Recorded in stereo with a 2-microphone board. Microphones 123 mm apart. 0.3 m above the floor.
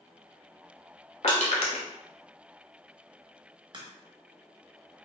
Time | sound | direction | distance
1.2 | crushing | 65° left (ahead or behind) | 0.9 m
3.7 | a crack | 40° right (ahead or behind) | 0.7 m